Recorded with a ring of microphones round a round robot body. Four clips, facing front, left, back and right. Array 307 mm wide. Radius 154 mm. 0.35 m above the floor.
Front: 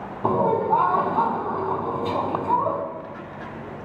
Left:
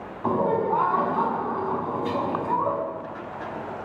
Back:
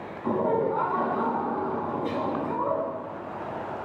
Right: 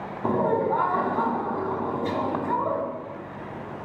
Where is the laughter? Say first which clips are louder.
Even, front 4 dB; 25° right, 3 m.